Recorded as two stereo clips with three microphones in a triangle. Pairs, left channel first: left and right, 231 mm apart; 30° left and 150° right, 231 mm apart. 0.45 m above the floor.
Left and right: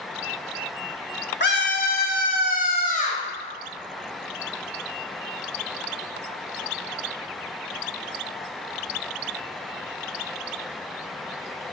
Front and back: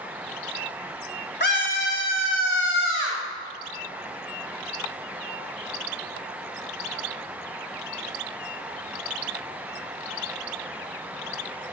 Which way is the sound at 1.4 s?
60° left.